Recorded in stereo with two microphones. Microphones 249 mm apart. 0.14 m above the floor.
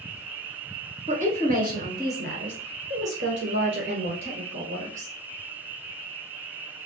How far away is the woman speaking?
About 1.4 m.